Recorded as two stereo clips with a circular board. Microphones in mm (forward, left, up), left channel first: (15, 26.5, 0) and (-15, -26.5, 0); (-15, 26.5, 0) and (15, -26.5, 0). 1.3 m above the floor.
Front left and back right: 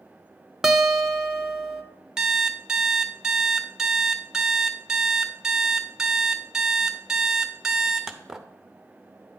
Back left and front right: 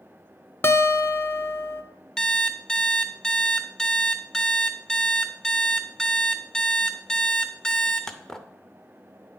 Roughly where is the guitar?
Behind.